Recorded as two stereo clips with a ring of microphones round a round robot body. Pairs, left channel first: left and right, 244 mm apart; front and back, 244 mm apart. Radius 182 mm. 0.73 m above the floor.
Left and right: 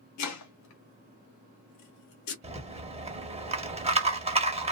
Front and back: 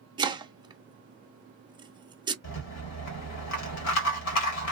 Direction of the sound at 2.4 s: 25° right.